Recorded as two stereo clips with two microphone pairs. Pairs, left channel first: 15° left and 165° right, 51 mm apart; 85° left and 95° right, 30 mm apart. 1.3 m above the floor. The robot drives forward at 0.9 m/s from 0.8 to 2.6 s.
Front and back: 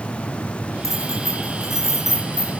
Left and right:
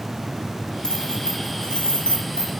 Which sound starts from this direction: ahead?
Keys jangling, at 0.8 s.